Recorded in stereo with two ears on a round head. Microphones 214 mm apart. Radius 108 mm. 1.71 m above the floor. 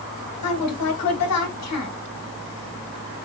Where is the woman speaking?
75° left (ahead or behind), 1.7 m.